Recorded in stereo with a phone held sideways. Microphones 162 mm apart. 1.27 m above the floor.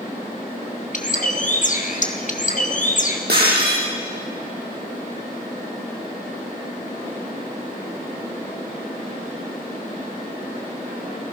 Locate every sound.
0.9 s a bird: 55° left (ahead or behind), 1.8 m
3.3 s breaking glass: 80° right, 6.5 m